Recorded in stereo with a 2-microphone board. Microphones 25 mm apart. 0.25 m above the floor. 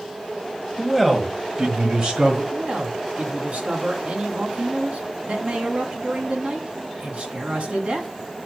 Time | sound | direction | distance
0.8 | a man speaking | centre (ahead or behind) | 1.6 m
2.5 | a man speaking | 60° right (ahead or behind) | 2 m